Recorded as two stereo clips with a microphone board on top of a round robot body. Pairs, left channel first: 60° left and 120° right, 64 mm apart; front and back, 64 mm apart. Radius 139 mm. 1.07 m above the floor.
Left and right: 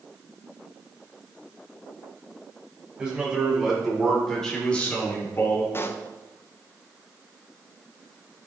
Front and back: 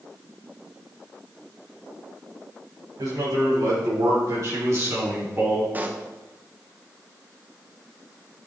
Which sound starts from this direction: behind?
A man speaking, at 3.0 s.